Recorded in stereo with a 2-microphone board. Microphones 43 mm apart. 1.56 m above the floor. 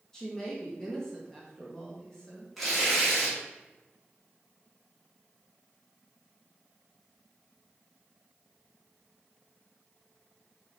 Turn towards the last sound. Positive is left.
turn(degrees=0)  # may be behind; listen again after turning